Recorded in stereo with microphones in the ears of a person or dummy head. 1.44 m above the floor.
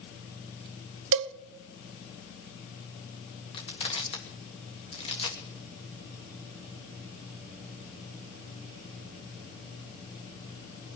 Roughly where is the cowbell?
Right.